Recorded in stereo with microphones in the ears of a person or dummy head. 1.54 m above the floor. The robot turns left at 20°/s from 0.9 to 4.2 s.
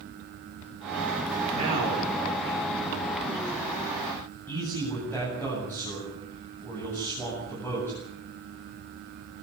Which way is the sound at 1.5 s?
45° right (ahead or behind).